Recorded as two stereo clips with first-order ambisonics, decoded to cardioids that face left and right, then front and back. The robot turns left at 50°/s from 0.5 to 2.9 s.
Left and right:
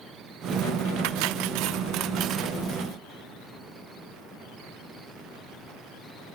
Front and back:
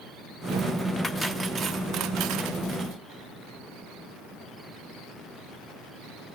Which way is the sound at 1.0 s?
85° right.